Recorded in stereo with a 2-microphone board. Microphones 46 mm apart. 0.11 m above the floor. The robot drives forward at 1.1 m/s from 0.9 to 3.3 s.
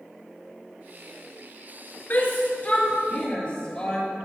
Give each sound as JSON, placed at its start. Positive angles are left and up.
{"t": 2.1, "sound": "a shout", "side_deg": 40, "distance_m": 1.5}